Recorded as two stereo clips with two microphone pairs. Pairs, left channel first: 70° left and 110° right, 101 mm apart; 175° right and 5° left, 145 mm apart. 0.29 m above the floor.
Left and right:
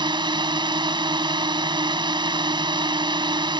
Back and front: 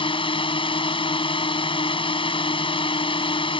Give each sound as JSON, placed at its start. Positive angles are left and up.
{"t": 0.0, "sound": "a drone", "azimuth_deg": -135}